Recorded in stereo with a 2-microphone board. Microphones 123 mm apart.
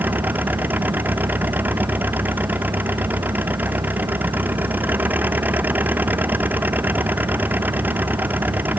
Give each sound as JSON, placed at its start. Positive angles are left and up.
{"t": 0.0, "sound": "an engine running", "side_deg": -15}